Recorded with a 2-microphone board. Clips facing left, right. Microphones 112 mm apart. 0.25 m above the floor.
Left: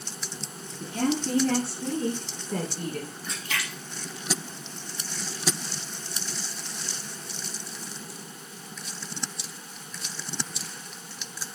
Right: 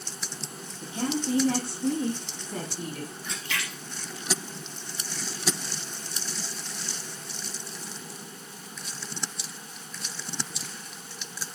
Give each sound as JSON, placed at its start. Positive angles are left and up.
{"t": 0.8, "sound": "a woman speaking", "side_deg": 65, "distance_m": 3.5}
{"t": 3.2, "sound": "a splash", "side_deg": 40, "distance_m": 4.5}